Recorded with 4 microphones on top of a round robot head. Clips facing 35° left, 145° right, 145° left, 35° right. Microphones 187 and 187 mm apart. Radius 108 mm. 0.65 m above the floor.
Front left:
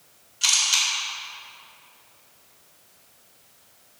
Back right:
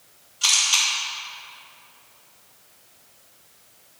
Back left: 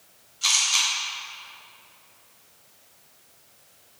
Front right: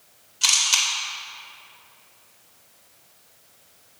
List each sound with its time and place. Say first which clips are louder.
0.4 s a camera shutter: back right 2 dB, front right 1 dB; 30° right, 3 m